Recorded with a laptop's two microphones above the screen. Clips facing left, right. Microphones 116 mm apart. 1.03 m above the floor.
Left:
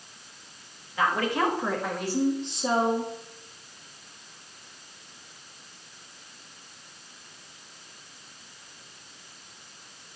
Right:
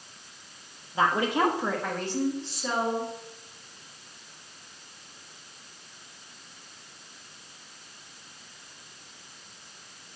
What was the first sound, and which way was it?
A woman speaking, 30° right (ahead or behind).